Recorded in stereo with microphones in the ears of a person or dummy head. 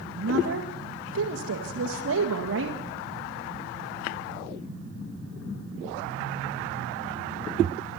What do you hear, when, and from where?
0.2 s a woman speaking: 75° right (ahead or behind), 1.8 m